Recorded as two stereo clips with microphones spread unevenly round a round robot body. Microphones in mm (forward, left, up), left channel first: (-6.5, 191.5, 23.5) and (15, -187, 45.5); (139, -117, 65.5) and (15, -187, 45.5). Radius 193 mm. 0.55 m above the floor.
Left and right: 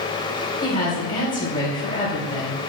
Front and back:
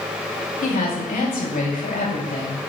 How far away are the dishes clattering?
No dishes clattering in this recording.